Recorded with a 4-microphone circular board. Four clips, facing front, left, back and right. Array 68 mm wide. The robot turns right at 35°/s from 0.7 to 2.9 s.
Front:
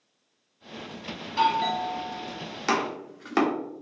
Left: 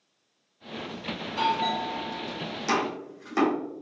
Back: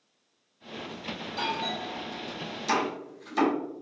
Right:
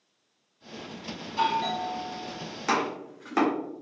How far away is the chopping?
About 1.1 m.